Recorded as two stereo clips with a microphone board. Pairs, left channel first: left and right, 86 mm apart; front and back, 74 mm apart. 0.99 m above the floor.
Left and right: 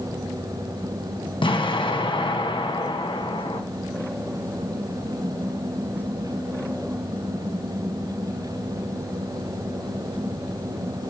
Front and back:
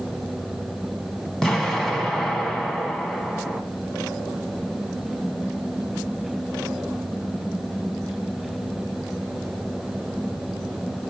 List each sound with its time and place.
1.4 s an explosion: 85° left, 0.8 m